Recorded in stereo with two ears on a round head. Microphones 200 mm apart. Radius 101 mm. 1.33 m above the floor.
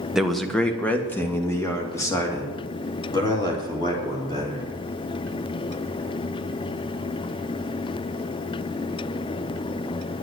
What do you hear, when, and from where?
0.1 s a man speaking: 5° right (ahead or behind), 1.0 m; by 4.7 s 20° left (ahead or behind), 4 m